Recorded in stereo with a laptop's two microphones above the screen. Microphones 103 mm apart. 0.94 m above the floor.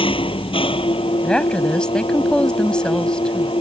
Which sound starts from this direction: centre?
A woman speaking, at 1.2 s.